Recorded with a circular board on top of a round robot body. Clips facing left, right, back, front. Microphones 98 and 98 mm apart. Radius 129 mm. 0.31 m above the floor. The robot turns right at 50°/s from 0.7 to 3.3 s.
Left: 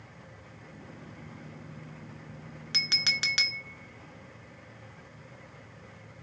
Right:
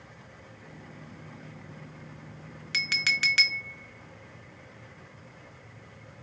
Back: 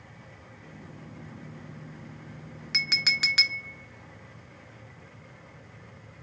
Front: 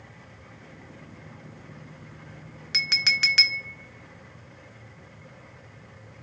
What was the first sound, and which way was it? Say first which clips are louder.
A clink: right 4 dB, front 2 dB; 90° left.